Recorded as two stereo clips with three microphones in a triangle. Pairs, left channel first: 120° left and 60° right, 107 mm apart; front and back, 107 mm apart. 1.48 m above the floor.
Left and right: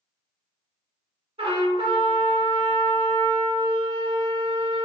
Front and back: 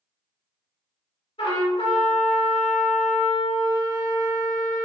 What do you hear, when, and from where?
1.4 s a trumpet: 30° right, 1.8 m